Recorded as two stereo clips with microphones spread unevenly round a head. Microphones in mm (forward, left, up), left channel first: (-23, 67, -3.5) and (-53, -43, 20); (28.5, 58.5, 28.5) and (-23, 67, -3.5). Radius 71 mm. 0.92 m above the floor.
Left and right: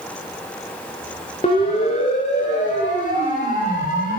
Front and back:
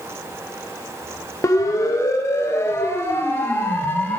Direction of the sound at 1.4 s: 25° left.